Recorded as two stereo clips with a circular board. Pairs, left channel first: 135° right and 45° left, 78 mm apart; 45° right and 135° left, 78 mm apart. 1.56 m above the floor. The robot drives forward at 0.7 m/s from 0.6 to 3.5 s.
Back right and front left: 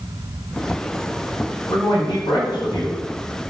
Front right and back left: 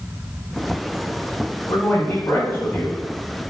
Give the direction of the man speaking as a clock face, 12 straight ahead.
4 o'clock.